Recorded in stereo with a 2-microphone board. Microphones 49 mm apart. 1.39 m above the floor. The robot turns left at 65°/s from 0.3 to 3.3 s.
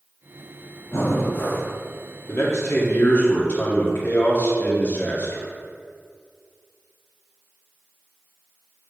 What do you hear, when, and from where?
0.9 s breathing: 80° left, 0.9 m; by 1.7 s 30° left, 0.9 m
2.3 s a man speaking: 105° left, 1.7 m; by 5.5 s 40° left, 1.7 m